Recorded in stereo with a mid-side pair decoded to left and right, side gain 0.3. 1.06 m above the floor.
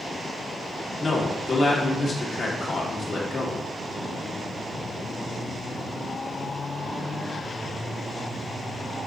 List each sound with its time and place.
1.0 s a man speaking: 60° left, 1.5 m